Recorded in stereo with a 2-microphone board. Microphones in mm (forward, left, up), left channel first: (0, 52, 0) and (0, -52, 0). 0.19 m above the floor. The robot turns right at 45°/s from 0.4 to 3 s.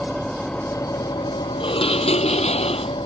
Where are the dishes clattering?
55° left; by 2.9 s 115° left.